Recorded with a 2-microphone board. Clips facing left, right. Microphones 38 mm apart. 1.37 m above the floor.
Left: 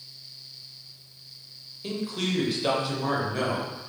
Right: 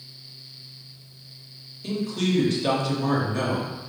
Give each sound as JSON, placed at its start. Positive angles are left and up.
{"t": 1.8, "sound": "a man speaking", "side_deg": 10, "distance_m": 0.9}